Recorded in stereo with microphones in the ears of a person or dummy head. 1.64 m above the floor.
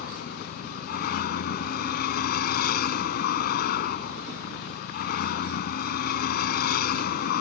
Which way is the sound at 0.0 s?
55° left (ahead or behind).